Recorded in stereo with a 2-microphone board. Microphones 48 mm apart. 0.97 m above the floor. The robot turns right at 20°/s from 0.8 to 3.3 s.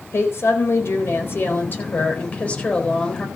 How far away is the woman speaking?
About 4 m.